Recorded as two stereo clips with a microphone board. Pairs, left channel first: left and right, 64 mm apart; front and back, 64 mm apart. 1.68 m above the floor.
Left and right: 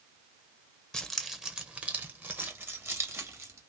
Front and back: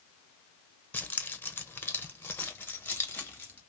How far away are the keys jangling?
About 0.8 m.